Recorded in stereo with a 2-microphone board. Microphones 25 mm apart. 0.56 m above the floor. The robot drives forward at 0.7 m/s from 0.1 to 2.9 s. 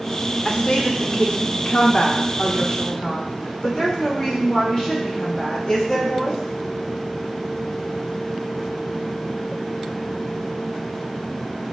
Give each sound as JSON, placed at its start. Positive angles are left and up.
{"t": 0.5, "sound": "a woman speaking", "side_deg": 40, "distance_m": 1.4}